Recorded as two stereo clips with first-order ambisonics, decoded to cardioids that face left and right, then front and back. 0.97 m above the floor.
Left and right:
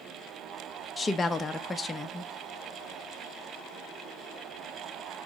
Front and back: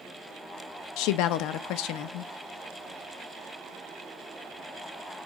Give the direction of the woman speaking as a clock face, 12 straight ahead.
12 o'clock.